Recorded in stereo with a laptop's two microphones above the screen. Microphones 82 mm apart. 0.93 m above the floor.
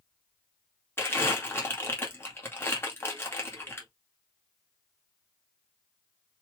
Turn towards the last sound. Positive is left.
turn(degrees=30)  # may be behind; listen again after turning